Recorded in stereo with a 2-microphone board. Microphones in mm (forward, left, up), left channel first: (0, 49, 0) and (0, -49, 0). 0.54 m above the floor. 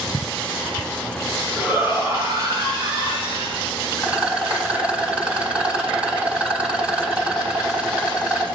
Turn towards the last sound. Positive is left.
turn(degrees=-15)  # may be behind; listen again after turning